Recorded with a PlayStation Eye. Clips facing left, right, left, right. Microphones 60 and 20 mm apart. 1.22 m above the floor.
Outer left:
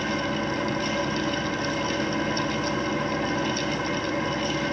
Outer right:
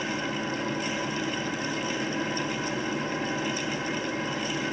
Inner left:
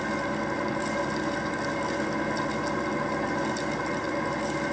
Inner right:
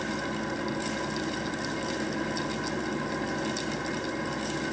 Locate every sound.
0.0 s an engine running: 80° left, 4.5 m